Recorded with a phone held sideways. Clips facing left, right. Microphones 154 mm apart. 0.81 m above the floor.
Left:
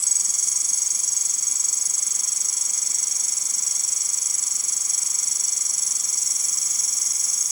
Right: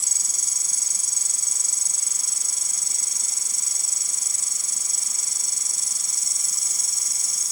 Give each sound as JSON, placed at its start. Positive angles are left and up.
{"t": 0.0, "sound": "an insect", "side_deg": -30}